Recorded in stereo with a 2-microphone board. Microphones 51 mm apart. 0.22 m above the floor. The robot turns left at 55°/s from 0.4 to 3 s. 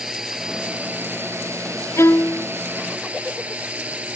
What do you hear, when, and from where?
0.0 s a drone: 10° right; by 4.2 s 150° right
2.0 s a violin: 70° left (ahead or behind); by 2.5 s 65° left (ahead or behind)